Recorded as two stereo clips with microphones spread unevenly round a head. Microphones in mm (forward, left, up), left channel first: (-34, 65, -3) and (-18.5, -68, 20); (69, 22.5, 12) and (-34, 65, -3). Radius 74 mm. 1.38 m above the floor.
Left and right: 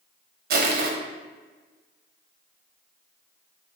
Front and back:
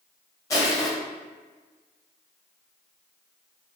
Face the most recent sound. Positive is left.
turn(degrees=-95)